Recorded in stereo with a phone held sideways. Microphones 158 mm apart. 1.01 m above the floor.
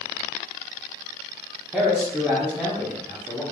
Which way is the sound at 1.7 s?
5° right (ahead or behind).